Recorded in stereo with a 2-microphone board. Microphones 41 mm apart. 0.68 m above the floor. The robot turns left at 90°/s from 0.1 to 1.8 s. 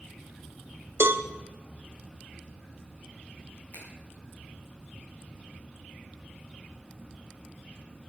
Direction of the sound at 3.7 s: 55° left (ahead or behind).